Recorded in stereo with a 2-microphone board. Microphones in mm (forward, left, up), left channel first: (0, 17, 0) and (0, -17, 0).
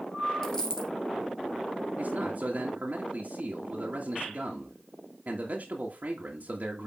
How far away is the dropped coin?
About 1.8 m.